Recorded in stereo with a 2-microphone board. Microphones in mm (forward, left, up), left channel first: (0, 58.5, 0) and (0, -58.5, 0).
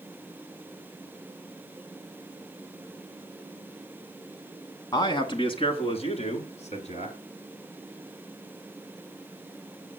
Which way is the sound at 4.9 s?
35° left (ahead or behind).